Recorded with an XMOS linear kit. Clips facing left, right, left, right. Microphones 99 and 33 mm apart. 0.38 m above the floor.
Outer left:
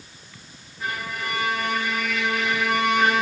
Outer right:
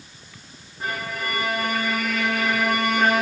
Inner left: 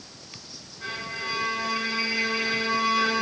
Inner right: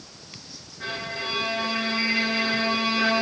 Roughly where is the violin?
Right.